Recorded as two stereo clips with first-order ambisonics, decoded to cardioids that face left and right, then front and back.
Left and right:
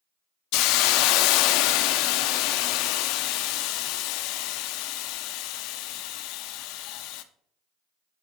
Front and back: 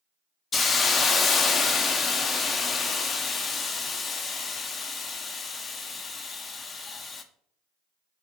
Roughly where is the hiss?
Left.